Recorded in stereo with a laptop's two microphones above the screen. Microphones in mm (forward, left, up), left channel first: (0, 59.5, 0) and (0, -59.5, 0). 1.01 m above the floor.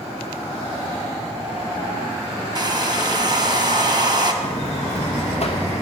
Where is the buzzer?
60° left (ahead or behind), 0.9 m.